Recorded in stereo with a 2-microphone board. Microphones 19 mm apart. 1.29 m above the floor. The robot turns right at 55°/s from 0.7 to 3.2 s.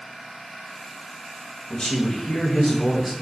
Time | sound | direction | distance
1.7 | a man speaking | 140° left | 0.8 m